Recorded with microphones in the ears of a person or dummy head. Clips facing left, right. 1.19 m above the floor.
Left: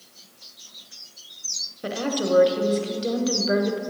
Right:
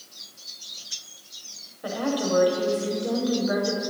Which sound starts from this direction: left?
A woman speaking, at 1.8 s.